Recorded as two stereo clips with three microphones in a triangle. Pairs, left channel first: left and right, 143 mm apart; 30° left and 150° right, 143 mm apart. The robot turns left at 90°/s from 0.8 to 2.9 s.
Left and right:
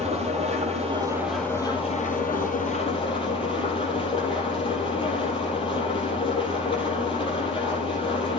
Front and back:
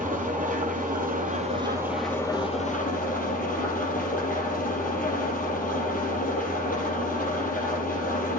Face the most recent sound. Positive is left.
turn(degrees=40)